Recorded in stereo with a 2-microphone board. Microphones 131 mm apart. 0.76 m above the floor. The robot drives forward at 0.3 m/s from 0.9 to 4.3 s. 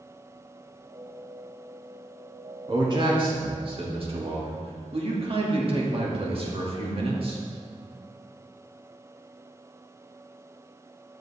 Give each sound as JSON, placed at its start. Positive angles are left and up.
{"t": 2.7, "sound": "a man speaking", "side_deg": -35, "distance_m": 1.6}